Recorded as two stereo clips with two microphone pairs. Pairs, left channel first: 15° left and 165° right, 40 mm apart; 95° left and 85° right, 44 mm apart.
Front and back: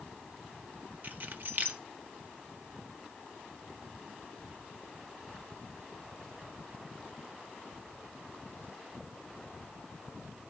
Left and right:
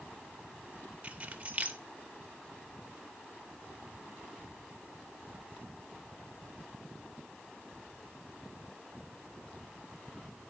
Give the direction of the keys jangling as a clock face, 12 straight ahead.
5 o'clock.